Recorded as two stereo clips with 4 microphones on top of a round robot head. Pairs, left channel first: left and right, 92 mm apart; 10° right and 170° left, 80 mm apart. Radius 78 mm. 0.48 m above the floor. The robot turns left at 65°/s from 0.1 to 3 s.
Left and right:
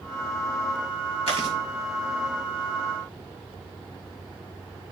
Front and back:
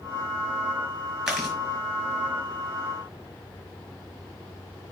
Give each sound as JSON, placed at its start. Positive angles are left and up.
{"t": 1.3, "sound": "chewing", "azimuth_deg": 85, "distance_m": 5.5}